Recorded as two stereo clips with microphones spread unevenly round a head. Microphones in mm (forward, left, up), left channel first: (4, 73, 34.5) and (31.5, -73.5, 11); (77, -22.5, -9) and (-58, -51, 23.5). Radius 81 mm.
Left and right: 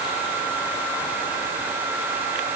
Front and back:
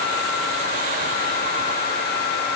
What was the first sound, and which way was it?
Only background noise.